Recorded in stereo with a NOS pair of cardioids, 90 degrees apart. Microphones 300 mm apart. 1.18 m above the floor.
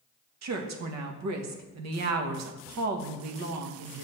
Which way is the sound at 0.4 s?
65° right.